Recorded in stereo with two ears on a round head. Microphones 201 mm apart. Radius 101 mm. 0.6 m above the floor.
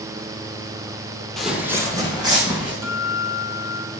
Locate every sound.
1.4 s footsteps: centre (ahead or behind), 0.8 m; by 2.7 s 20° right (ahead or behind), 2.5 m
2.8 s a guitar: 75° right (ahead or behind), 3 m